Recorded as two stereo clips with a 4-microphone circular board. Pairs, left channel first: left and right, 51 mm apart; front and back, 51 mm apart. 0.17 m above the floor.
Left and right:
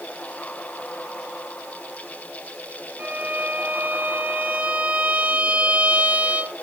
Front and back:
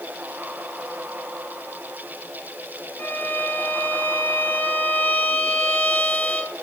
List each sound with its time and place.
3.0 s a violin: 35° right, 0.9 m